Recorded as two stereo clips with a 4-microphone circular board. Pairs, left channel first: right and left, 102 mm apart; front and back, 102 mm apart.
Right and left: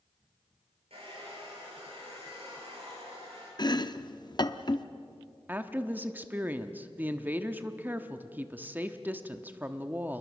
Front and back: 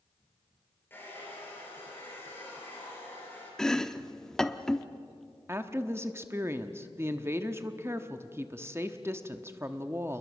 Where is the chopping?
80° right, 0.7 m.